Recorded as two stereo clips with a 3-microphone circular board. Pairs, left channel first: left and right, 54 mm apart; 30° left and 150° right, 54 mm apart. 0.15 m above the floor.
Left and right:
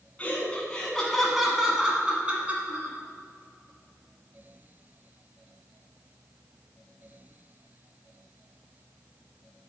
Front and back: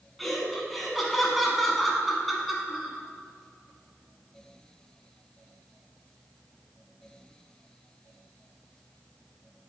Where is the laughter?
115° left, 1.4 m; by 3.0 s 60° right, 1.6 m.